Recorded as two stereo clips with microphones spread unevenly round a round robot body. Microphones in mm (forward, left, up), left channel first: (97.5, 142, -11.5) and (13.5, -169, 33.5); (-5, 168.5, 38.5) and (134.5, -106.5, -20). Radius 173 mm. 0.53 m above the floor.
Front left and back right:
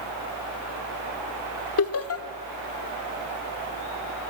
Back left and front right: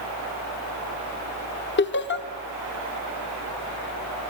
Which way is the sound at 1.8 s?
65° left.